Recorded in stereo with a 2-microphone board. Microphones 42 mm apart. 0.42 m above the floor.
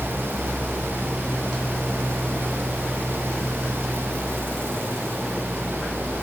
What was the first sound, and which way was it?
Only background noise.